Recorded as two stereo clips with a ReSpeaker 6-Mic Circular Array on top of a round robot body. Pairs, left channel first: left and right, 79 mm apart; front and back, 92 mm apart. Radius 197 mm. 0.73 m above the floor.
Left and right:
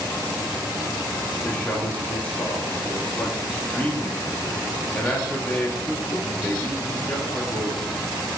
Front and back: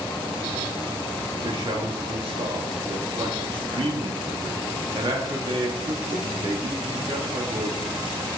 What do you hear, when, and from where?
1.4 s a man speaking: 160° left, 2 m